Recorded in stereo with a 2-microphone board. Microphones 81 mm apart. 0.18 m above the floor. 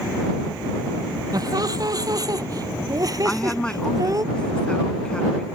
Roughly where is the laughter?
Right.